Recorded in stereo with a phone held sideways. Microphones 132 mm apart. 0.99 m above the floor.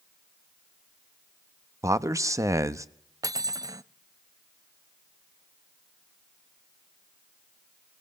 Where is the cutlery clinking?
25° right (ahead or behind), 0.5 m.